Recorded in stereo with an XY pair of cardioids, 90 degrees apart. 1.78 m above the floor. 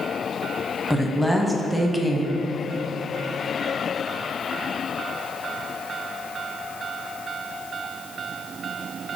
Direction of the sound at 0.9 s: 5° right.